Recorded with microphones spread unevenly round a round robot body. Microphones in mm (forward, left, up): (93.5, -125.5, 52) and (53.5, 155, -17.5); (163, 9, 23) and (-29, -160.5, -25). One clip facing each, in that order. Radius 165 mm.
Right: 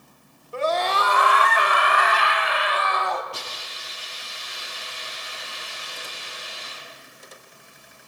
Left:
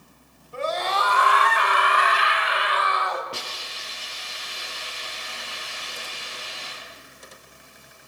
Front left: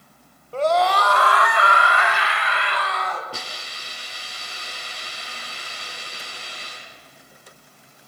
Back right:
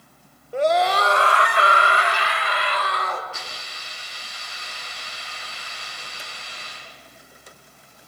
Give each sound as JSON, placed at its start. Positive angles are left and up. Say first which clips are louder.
{"t": 0.5, "sound": "a scream", "louder": "right 3 dB, even", "azimuth_deg": -70, "distance_m": 2.5}
{"t": 3.3, "sound": "a hiss", "louder": "left 1 dB, front left 3 dB", "azimuth_deg": 85, "distance_m": 7.0}